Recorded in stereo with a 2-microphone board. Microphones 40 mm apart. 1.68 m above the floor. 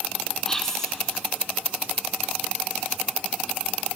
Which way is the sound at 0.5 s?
15° left (ahead or behind).